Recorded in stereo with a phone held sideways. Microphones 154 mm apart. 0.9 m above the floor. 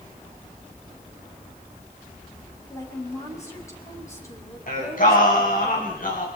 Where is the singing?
65° left (ahead or behind), 5 m.